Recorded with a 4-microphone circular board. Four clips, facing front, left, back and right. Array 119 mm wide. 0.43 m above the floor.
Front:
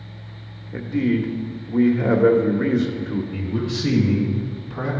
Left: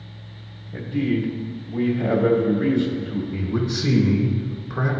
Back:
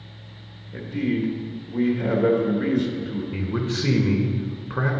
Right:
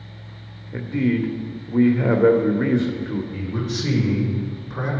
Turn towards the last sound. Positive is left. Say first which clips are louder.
# left 2 dB, front 1 dB
turn(degrees=165)